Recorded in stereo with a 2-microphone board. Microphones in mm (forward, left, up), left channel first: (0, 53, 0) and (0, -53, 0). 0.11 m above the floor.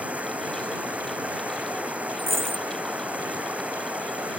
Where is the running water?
10° right (ahead or behind).